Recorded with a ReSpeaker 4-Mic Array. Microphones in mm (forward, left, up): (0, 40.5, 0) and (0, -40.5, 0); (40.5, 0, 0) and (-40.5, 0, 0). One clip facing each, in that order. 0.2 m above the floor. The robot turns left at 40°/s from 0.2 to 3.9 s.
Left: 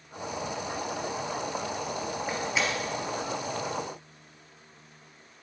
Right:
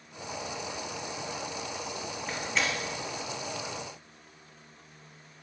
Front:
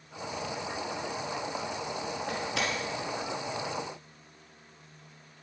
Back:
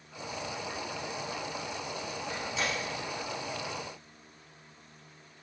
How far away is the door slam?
About 3 m.